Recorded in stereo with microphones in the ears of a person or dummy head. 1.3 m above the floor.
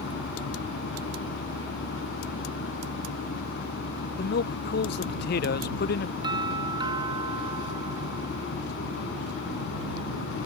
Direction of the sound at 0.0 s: 70° left (ahead or behind).